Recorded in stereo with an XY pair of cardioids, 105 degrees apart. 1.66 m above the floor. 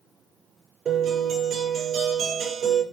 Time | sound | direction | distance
0.8 | a guitar | 60° right | 6.5 m